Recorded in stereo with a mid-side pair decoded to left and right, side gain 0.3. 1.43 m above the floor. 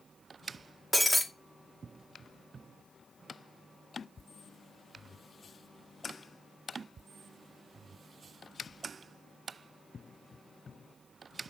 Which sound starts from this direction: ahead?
Breaking glass, at 0.9 s.